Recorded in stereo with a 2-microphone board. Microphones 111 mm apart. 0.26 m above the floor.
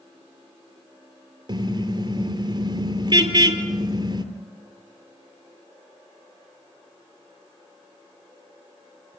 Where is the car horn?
45° right (ahead or behind), 2.5 m.